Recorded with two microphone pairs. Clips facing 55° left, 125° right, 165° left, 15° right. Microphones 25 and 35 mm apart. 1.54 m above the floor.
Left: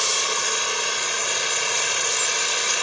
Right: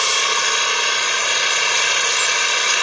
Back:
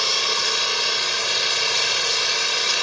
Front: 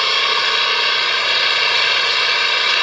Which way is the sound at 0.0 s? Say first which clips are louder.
Right 6 dB, front 6 dB; 65° right.